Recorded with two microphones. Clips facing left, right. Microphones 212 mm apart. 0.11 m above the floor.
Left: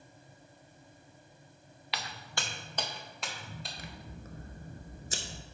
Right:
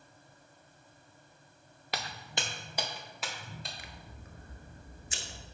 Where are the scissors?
45° left (ahead or behind), 0.7 m.